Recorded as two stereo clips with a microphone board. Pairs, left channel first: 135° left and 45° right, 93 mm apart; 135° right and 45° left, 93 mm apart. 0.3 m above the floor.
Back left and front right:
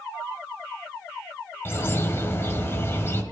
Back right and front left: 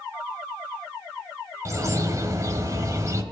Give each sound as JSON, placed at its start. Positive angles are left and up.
{"t": 1.6, "sound": "a bird", "azimuth_deg": 80, "distance_m": 1.3}